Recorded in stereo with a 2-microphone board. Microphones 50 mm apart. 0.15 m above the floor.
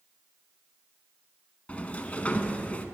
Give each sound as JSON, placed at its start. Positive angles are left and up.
{"t": 1.7, "sound": "a sliding door", "side_deg": 25, "distance_m": 0.7}